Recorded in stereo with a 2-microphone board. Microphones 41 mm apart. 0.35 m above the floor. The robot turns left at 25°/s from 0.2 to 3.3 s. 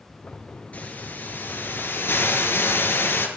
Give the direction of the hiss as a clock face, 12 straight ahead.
7 o'clock.